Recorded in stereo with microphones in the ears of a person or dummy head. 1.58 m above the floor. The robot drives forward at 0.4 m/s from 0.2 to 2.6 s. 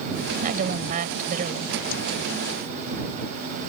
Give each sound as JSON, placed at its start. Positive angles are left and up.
{"t": 0.4, "sound": "a woman speaking", "side_deg": -45}